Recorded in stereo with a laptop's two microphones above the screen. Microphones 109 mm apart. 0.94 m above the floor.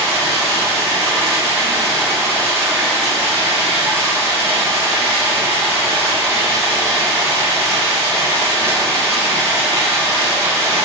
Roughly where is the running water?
Right.